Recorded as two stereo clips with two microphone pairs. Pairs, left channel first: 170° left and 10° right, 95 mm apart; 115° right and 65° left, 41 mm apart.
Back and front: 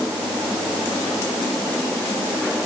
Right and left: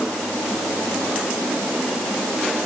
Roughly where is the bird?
I don't hear a bird.